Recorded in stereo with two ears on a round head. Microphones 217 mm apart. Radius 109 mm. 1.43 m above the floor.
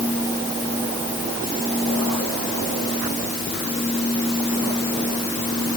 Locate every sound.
Only background noise.